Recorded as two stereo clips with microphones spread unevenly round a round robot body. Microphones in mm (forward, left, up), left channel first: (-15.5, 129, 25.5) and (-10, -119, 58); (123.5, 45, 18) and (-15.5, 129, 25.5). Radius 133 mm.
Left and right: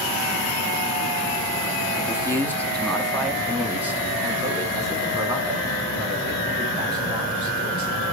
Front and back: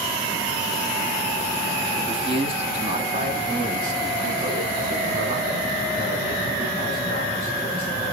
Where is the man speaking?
130° left, 1.3 m; by 8.1 s 160° right, 4.5 m.